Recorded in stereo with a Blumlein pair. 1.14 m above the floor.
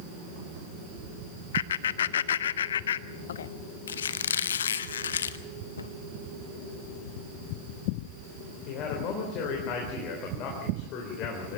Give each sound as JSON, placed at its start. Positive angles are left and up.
{"t": 1.5, "sound": "laughter", "azimuth_deg": 65, "distance_m": 0.6}
{"t": 3.9, "sound": "a squeak", "azimuth_deg": 65, "distance_m": 0.9}
{"t": 5.8, "sound": "a cupboard door", "azimuth_deg": 70, "distance_m": 1.0}
{"t": 8.7, "sound": "a man speaking", "azimuth_deg": 40, "distance_m": 3.5}